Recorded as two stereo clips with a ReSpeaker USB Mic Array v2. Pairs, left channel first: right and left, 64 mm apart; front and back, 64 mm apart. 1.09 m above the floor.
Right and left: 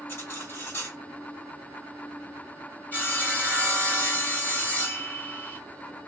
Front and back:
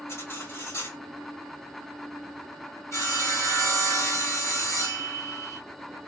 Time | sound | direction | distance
0.1 | cutlery clinking | 35° right | 2.5 m
2.9 | sawing | 30° right | 2.5 m